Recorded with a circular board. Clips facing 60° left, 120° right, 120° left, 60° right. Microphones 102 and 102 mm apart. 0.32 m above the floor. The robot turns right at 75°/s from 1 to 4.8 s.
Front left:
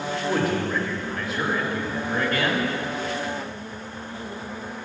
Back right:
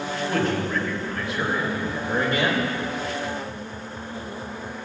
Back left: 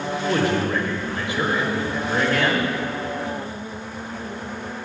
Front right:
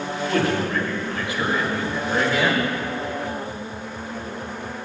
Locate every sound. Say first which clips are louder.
0.3 s a man speaking: front left 1 dB, back left 1 dB; 125° left, 0.9 m; by 2.7 s 105° right, 0.9 m